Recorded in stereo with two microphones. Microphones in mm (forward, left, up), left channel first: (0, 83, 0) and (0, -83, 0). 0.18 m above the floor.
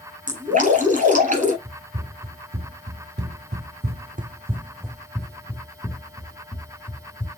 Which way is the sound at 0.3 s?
55° right (ahead or behind).